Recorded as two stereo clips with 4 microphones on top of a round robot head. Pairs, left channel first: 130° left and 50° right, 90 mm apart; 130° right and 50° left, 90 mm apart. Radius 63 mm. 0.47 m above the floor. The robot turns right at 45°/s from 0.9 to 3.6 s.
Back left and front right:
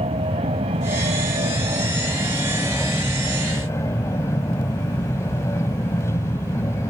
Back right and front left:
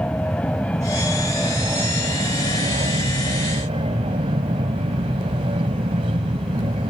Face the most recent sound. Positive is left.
turn(degrees=70)